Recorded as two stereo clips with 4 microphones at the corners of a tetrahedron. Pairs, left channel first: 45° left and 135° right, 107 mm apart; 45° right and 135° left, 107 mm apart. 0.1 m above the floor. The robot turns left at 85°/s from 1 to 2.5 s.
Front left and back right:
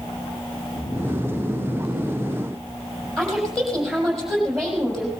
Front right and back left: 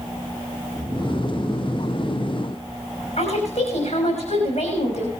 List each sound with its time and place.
0.7 s snoring: 65° left, 2.0 m; by 3.2 s 60° right, 2.0 m
3.2 s a woman speaking: 45° right, 6 m